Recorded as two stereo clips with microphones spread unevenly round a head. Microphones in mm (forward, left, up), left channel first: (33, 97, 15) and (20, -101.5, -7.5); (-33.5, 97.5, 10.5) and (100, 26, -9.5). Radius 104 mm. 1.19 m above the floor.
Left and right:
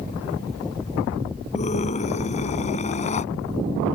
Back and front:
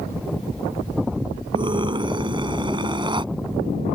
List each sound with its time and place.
1.5 s a scream: 30° left